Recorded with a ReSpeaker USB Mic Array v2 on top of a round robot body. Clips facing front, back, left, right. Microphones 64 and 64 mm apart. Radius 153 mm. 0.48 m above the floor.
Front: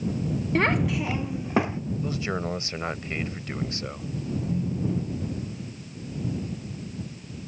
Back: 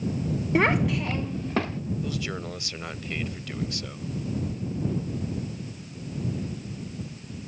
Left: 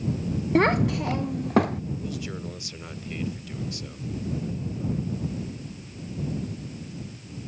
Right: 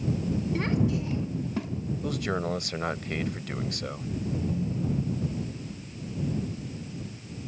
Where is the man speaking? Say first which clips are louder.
Front 3 dB, right 5 dB; 60° right.